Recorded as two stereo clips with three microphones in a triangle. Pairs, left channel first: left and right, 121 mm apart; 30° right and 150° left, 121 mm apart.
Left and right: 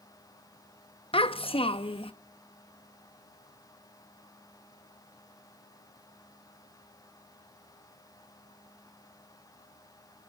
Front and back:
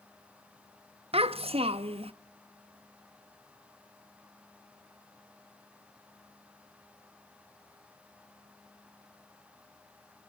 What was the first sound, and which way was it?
A child speaking, 125° left.